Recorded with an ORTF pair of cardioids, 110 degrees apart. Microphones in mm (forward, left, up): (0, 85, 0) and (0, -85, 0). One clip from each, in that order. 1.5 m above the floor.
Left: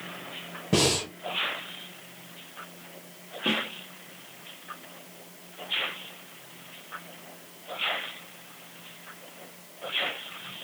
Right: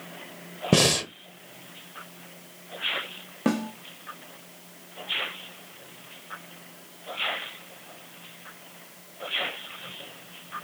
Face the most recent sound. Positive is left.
turn(degrees=-50)